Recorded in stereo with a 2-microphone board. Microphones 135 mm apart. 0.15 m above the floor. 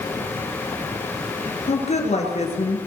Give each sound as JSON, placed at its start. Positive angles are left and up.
{"t": 1.7, "sound": "a woman speaking", "side_deg": 55, "distance_m": 2.0}